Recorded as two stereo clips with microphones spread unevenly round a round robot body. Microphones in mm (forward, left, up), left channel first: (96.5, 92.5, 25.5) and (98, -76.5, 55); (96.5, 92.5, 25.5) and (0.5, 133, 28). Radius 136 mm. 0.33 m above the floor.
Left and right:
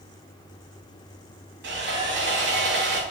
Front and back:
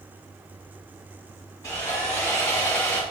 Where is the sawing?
90° right, 1.5 m.